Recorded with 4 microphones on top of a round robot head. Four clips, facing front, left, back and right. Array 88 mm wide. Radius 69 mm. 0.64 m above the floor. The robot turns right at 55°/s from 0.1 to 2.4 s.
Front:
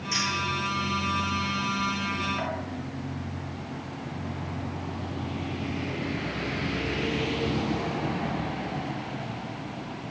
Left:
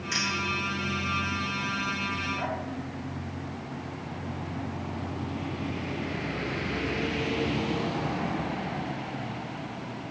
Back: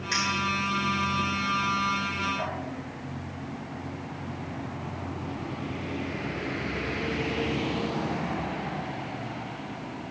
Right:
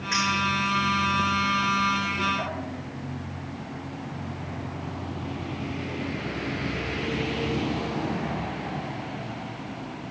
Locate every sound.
0.1 s a clink: 120° right, 7 m; by 2.5 s 5° left, 7 m